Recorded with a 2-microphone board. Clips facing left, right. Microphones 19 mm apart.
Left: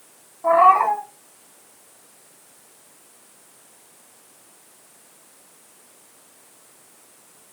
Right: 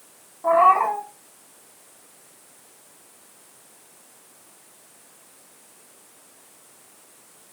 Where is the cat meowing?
20° left (ahead or behind), 1.1 m.